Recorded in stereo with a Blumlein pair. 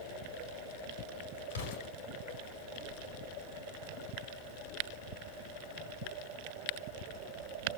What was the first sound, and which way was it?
An explosion, 60° left.